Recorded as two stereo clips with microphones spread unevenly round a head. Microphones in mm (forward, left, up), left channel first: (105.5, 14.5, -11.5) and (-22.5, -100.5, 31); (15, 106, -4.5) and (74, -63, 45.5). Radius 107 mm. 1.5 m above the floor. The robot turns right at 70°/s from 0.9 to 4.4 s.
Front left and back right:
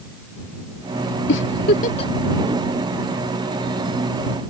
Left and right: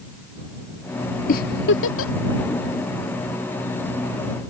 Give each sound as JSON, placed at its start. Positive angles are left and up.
{"t": 1.3, "sound": "a giggle", "azimuth_deg": 60}